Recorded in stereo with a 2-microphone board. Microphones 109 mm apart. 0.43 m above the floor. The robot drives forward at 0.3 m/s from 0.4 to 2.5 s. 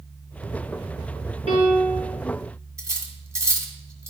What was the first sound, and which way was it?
A piano, 65° right (ahead or behind).